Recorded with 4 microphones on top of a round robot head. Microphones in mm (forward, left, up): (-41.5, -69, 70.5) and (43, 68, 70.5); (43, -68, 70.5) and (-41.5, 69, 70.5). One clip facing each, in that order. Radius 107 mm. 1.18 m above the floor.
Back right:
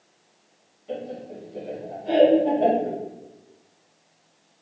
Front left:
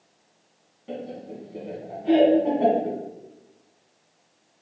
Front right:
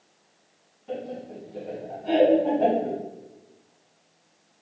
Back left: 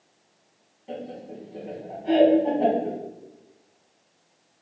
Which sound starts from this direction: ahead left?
Laughter, at 0.9 s.